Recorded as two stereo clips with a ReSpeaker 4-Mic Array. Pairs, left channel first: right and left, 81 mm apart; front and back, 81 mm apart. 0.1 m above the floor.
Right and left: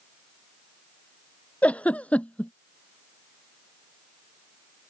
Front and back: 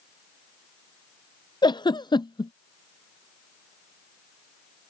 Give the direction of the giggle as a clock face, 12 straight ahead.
1 o'clock.